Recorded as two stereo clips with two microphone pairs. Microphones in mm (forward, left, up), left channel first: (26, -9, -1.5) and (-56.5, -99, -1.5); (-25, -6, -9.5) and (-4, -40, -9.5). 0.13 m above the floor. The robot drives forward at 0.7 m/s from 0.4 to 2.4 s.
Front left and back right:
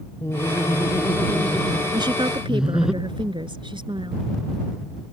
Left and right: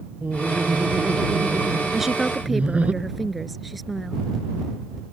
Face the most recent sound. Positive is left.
turn(degrees=-145)